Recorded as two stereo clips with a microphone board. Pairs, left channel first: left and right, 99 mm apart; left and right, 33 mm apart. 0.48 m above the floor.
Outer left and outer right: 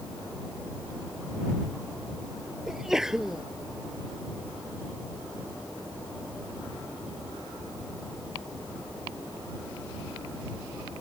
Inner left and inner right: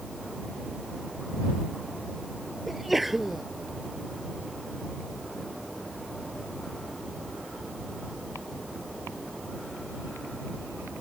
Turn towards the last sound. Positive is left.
turn(degrees=-5)  # may be behind; listen again after turning